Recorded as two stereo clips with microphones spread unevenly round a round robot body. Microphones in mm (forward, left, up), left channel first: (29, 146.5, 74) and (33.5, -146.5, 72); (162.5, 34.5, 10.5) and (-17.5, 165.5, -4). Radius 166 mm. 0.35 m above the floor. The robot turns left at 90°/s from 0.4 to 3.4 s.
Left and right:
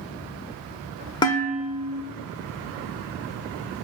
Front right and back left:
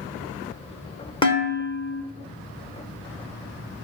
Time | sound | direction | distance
1.2 | dishes clattering | 25° left | 0.9 m